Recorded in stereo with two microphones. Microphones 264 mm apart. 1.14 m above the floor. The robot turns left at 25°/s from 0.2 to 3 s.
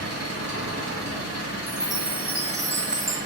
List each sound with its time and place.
0.0 s an engine running: 65° right, 2 m; by 3.3 s 135° right, 2 m
1.7 s a chime: 30° right, 0.9 m; by 3.2 s 65° right, 0.9 m